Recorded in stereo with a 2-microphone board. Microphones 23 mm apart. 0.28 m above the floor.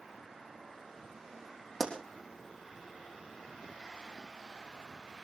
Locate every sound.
1.8 s a pop: 5° right (ahead or behind), 3.5 m